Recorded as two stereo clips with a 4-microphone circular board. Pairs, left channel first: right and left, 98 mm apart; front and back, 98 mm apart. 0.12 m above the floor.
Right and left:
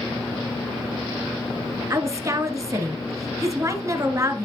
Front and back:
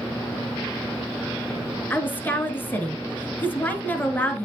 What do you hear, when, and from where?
1.9 s a woman speaking: 60° left, 1.4 m